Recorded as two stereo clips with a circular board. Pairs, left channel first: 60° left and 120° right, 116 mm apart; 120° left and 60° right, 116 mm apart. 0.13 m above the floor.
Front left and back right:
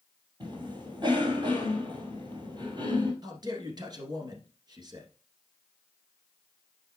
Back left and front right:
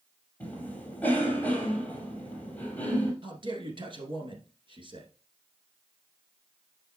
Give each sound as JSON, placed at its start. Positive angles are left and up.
{"t": 0.4, "sound": "a cough", "azimuth_deg": -160, "distance_m": 2.5}
{"t": 3.2, "sound": "a man speaking", "azimuth_deg": -80, "distance_m": 1.7}